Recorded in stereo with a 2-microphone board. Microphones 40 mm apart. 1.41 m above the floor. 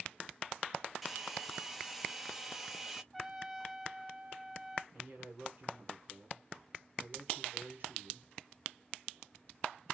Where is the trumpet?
10° right (ahead or behind), 0.5 m.